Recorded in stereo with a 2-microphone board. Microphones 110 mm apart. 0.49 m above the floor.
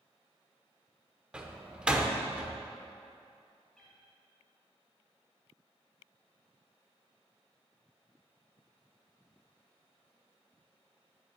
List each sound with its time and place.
1.3 s a door slam: 10° right (ahead or behind), 0.7 m
3.8 s a cat meowing: centre (ahead or behind), 3 m